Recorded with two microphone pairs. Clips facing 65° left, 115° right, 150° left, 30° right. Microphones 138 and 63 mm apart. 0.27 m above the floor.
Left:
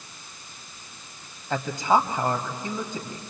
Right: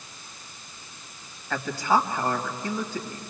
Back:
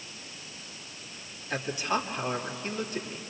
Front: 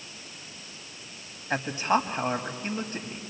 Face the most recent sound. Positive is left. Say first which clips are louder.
# left 2 dB, front 5 dB
turn(degrees=0)